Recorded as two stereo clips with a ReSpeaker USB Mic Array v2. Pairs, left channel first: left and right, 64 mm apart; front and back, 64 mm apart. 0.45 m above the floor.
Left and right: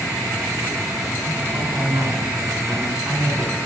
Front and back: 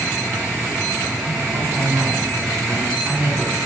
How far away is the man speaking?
About 4 m.